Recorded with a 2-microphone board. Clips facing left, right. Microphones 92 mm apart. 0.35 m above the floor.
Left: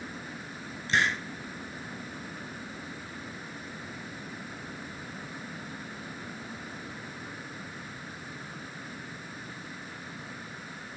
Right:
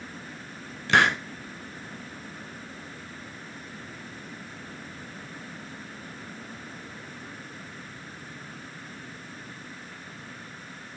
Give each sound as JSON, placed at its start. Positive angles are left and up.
{"t": 0.9, "sound": "a hiss", "side_deg": -70, "distance_m": 0.7}